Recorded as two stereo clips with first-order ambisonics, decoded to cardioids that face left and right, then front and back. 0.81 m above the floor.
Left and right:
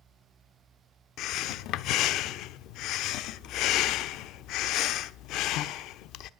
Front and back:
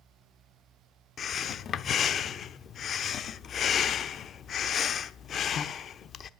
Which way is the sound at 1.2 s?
60° left.